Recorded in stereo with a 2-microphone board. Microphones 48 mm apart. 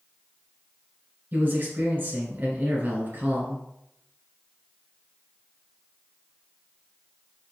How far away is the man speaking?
About 1.5 m.